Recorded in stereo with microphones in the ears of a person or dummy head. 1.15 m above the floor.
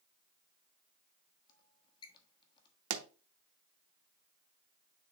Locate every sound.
1.5 s a squeak: 30° left (ahead or behind), 1.3 m
2.9 s a pop: 75° right (ahead or behind), 0.9 m